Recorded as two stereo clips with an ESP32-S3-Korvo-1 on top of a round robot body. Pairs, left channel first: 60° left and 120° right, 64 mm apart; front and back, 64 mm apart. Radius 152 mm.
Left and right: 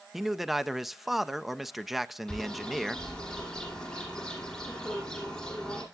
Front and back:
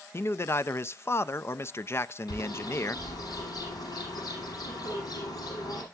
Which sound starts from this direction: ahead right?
A man speaking, at 0.1 s.